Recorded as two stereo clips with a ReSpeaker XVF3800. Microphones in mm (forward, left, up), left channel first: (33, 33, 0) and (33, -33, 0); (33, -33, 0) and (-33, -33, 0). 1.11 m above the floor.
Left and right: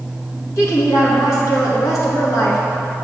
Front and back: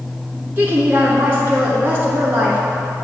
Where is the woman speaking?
125° left, 1.7 m.